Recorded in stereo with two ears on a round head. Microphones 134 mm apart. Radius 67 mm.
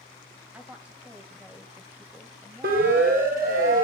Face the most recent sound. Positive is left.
turn(degrees=-60)  # may be behind; listen again after turning